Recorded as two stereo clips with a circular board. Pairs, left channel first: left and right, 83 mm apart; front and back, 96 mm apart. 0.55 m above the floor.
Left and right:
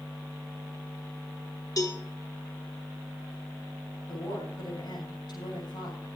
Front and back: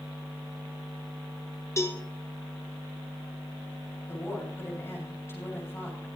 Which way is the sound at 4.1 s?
65° left.